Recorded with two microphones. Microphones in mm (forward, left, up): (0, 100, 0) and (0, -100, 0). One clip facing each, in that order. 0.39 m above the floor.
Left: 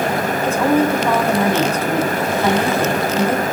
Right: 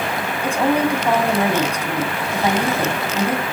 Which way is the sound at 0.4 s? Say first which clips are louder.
Left 2 dB; 15° right (ahead or behind).